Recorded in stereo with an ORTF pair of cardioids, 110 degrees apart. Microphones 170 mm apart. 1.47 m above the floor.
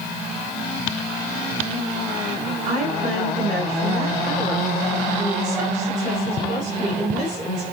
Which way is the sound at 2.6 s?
45° right.